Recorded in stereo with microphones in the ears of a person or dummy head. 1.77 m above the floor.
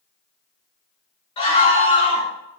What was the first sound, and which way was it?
A scream, 25° left (ahead or behind).